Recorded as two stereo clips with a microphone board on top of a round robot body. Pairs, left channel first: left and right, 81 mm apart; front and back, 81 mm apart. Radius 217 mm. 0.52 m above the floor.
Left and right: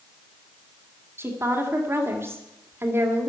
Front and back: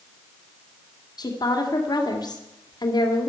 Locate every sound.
1.2 s a woman speaking: 30° right, 2.5 m